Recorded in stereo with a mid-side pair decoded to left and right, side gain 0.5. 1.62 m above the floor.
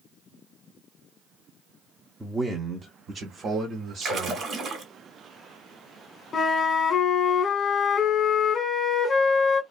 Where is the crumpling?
No crumpling in this recording.